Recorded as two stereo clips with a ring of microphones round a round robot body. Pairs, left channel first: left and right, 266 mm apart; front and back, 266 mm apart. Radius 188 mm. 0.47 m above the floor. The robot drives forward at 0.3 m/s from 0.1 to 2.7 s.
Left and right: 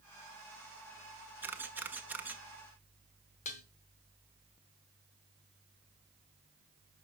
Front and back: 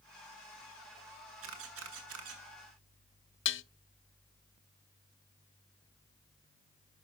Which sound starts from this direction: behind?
A camera shutter, at 1.4 s.